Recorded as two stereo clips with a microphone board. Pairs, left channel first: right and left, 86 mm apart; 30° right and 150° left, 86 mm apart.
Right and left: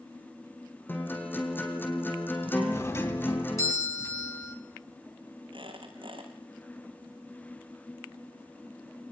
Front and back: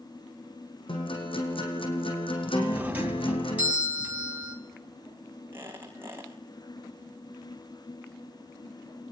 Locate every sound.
0.9 s a guitar: 25° right, 4.5 m
2.7 s a doorbell: 140° right, 3 m
5.5 s a squeak: 85° left, 6.5 m